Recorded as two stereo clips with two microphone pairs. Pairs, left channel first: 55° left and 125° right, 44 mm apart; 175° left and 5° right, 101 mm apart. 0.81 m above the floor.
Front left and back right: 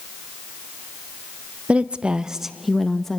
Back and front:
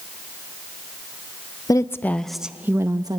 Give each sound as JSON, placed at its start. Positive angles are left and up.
{"t": 1.7, "sound": "a woman speaking", "azimuth_deg": -165, "distance_m": 0.6}